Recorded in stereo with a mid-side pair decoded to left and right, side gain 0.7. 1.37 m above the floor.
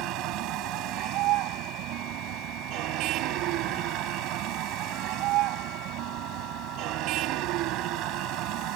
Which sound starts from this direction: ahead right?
A vehicle, at 0.0 s.